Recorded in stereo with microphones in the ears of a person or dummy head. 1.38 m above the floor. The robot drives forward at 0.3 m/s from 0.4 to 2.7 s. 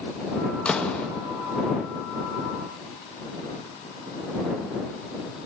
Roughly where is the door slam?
Centre.